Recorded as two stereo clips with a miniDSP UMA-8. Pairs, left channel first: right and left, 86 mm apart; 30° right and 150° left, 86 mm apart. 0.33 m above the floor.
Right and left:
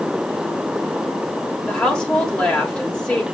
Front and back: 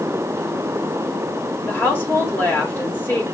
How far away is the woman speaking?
About 1.2 m.